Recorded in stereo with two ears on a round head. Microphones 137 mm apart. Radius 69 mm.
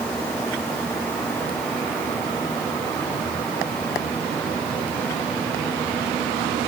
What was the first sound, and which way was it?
Only background noise.